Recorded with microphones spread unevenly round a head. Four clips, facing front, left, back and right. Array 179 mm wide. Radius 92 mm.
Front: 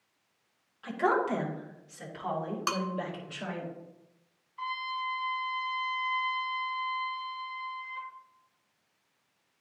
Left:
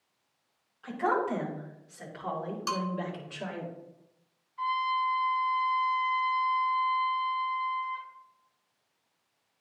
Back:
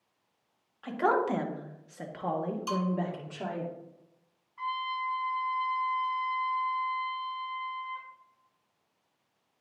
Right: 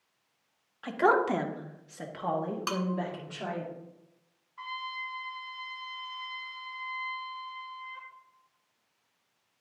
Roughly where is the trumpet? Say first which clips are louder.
Left 11 dB, back 2 dB; behind right.